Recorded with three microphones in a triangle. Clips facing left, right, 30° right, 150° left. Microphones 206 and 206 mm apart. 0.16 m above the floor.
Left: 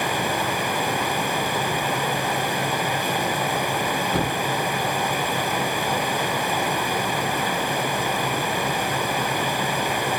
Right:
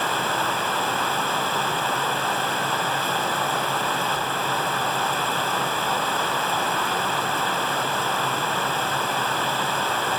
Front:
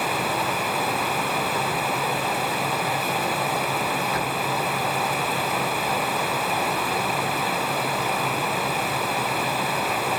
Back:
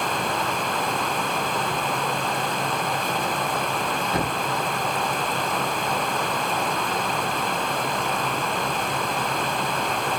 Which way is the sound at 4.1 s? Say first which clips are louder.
Left 5 dB, back 2 dB; 90° left.